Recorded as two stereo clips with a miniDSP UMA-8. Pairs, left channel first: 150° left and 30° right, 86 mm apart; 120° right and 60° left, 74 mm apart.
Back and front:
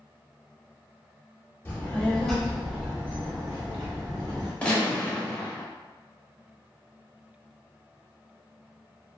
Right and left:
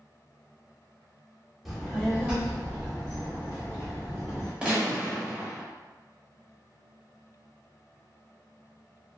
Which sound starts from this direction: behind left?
A child speaking, at 1.6 s.